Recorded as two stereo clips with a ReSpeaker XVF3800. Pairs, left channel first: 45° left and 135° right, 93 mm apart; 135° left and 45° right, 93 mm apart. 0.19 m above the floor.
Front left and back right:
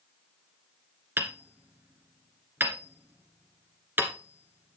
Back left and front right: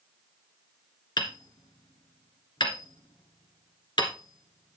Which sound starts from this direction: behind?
Hammering, at 1.2 s.